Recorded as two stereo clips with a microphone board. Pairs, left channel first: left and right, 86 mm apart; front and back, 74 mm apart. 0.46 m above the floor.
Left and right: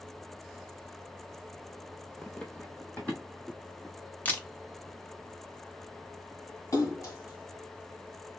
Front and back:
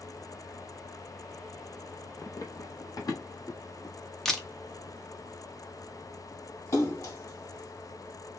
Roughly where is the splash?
Ahead left.